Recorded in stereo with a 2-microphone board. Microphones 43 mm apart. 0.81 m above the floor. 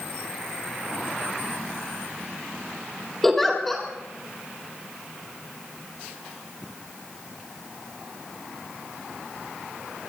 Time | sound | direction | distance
3.2 | a giggle | 5° left (ahead or behind) | 3.5 m